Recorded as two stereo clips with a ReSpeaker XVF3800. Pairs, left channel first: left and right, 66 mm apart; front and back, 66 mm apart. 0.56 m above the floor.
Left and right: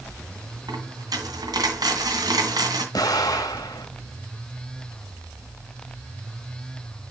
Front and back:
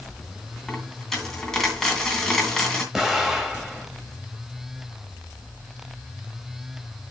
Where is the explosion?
95° left, 1.8 m.